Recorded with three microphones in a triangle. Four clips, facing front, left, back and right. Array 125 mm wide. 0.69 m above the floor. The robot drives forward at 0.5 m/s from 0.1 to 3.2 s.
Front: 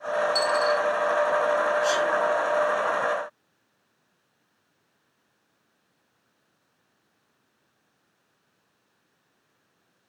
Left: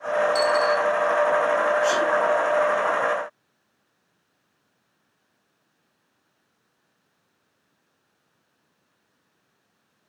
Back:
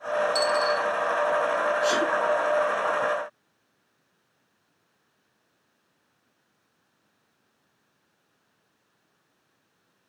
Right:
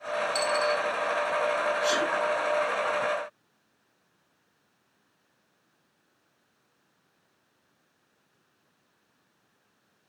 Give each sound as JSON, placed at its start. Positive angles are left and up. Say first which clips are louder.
{"t": 0.3, "sound": "a dropped coin", "louder": "left 4 dB, front 2 dB", "azimuth_deg": -110, "distance_m": 2.0}
{"t": 1.8, "sound": "a sneeze", "louder": "left 5 dB, even", "azimuth_deg": 170, "distance_m": 1.3}